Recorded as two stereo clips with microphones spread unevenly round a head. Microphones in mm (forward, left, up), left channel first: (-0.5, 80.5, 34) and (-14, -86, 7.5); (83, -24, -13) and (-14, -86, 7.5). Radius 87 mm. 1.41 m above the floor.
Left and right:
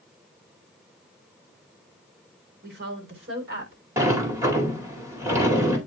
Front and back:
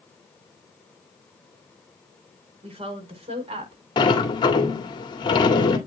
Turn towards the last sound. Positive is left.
turn(degrees=-15)